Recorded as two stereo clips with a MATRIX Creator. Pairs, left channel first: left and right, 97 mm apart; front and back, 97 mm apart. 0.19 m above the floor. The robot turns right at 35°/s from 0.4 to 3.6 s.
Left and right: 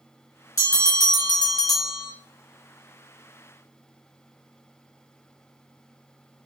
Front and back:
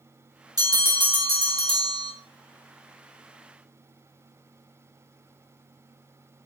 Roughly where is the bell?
Behind left.